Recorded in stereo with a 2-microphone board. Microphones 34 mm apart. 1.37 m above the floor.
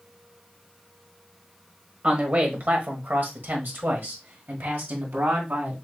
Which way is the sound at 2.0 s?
35° right (ahead or behind).